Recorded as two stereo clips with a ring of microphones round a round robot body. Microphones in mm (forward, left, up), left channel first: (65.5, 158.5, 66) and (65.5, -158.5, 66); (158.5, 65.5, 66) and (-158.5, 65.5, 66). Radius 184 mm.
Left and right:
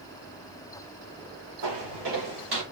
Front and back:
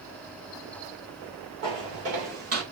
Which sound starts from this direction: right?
Footsteps, at 1.6 s.